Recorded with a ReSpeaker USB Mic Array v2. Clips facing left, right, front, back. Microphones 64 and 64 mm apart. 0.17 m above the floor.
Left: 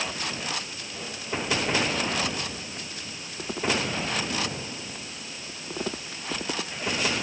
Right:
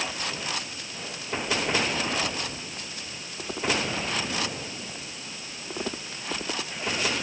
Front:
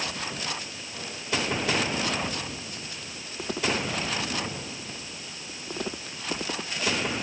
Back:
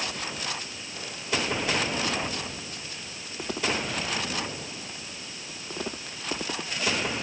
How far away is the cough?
I don't hear a cough.